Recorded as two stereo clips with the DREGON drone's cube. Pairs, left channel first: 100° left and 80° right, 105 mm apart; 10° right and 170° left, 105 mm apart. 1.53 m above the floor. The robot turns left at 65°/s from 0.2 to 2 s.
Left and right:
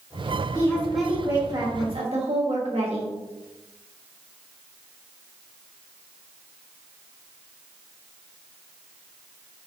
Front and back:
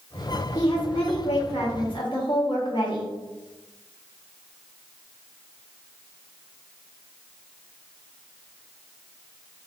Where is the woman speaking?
40° left, 1.2 m; by 3.1 s 55° right, 1.2 m.